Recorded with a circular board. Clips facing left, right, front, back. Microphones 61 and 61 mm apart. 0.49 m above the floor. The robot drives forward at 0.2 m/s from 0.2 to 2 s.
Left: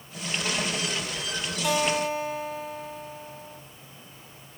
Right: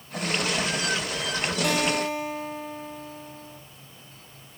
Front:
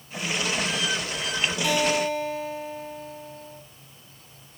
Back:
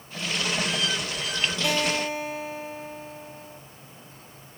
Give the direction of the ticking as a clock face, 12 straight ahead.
I don't hear ticking.